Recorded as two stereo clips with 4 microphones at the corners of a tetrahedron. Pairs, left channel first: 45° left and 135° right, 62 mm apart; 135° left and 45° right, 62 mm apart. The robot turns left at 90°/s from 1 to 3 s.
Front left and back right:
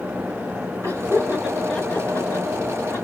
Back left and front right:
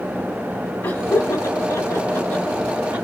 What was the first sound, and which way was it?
Laughter, 175° right.